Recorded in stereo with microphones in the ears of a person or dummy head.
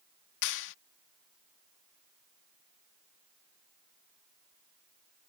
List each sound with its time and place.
0.4 s a clap: 65° left (ahead or behind)